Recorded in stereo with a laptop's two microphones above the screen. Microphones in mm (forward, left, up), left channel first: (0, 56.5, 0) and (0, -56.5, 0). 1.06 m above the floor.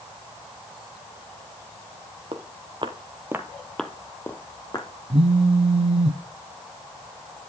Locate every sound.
2.3 s footsteps: 55° right (ahead or behind), 1.8 m; by 4.9 s 35° left (ahead or behind), 2 m
5.1 s a phone buzzing: 60° right (ahead or behind), 0.7 m